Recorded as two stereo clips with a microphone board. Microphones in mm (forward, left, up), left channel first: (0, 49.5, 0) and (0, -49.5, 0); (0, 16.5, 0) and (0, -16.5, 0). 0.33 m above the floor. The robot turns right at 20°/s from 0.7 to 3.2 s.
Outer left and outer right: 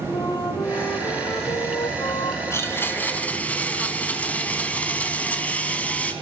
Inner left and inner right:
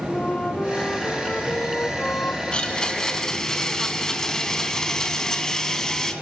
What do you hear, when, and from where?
0.1 s a flute: 40° left, 4 m; by 2.4 s 75° left, 4 m
2.5 s a blender: 25° left (ahead or behind), 3.5 m; by 6.1 s 15° left (ahead or behind), 3.5 m